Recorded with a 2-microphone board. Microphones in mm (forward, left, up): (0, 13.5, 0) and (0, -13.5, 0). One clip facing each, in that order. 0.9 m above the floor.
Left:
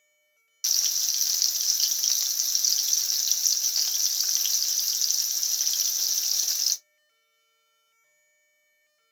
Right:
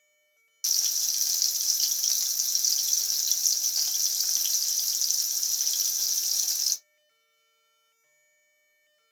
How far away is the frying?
About 0.5 m.